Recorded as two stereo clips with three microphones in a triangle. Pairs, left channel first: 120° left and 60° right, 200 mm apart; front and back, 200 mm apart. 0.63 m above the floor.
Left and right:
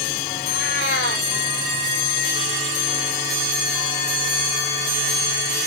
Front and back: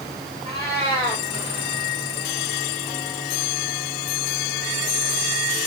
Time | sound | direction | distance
0.4 | a cat meowing | 115° left | 9 m